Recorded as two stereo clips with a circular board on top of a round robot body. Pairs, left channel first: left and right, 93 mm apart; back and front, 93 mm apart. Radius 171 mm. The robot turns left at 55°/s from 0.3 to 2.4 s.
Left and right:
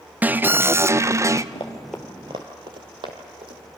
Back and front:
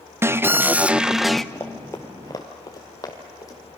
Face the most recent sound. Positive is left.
turn(degrees=-125)